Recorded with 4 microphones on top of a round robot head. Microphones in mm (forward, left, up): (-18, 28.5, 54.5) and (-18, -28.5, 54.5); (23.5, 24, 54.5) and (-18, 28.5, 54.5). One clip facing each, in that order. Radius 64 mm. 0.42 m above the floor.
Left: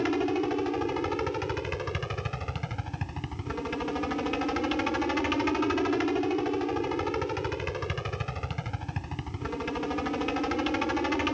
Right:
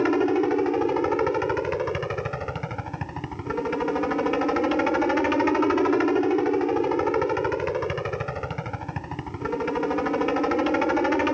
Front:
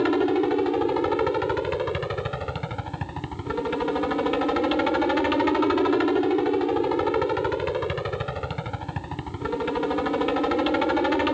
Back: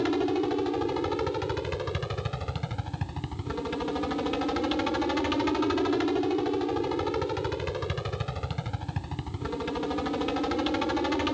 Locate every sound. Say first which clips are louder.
0.0 s a helicopter: right 6 dB, front 5 dB; 60° right